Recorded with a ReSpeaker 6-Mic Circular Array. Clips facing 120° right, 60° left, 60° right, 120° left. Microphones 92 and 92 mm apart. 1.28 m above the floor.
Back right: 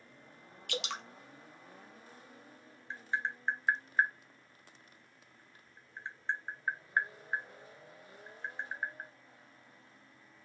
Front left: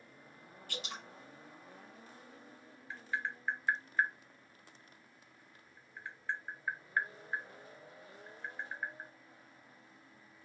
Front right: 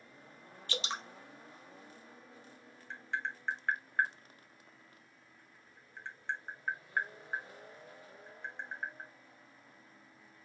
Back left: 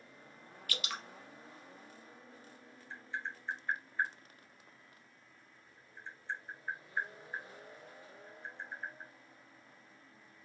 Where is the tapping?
60° right, 0.8 m.